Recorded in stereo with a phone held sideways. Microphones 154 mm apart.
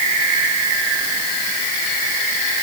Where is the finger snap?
No finger snap in this recording.